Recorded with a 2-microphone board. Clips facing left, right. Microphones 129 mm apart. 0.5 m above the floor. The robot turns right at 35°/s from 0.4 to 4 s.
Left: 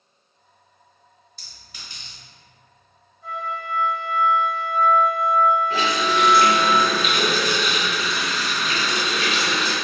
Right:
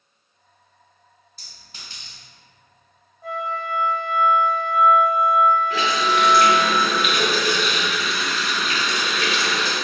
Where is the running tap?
35° left (ahead or behind), 1.2 m.